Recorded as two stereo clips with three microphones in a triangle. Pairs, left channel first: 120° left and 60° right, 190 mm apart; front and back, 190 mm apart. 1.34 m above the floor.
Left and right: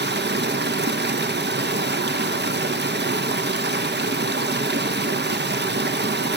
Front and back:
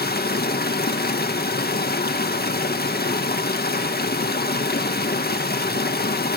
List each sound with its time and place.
0.0 s running water: 35° right, 1.1 m